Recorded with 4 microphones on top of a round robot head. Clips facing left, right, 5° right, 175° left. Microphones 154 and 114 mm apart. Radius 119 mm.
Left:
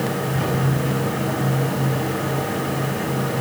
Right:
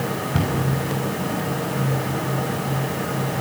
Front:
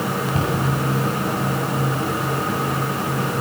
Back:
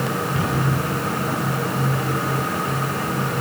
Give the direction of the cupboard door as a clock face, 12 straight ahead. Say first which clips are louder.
Left 1 dB, front 2 dB; 2 o'clock.